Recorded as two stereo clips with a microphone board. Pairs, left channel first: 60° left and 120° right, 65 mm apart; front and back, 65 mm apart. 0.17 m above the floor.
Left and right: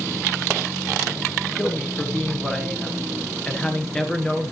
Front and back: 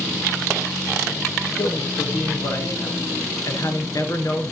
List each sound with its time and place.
1.6 s a man speaking: 15° right, 2 m